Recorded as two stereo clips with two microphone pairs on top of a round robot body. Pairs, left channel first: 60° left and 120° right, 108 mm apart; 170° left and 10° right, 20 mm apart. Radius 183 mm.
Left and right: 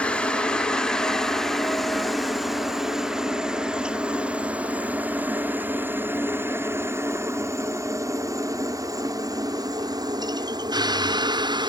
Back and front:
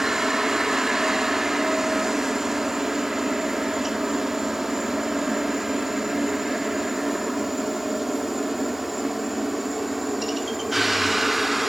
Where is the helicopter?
35° left; by 11.7 s 85° right.